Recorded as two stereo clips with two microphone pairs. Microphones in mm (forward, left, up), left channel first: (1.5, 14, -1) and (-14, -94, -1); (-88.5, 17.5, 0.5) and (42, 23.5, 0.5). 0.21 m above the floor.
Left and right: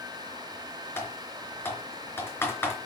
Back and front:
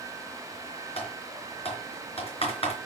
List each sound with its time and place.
1.0 s typing on a keyboard: 150° left, 4 m